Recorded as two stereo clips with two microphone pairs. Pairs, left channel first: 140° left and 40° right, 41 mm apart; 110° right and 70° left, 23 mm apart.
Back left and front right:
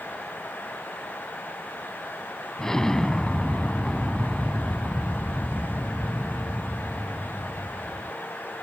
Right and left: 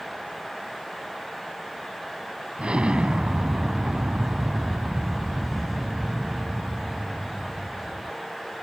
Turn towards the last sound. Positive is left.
turn(degrees=70)